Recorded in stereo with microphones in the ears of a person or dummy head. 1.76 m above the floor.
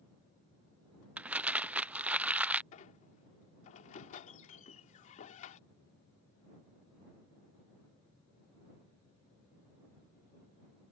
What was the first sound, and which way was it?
Crumpling, 5° right (ahead or behind).